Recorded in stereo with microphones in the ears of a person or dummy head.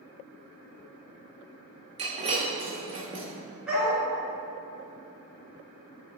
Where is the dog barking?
5° right (ahead or behind), 1.9 m.